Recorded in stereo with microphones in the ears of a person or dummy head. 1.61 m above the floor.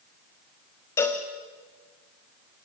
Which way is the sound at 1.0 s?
10° left (ahead or behind).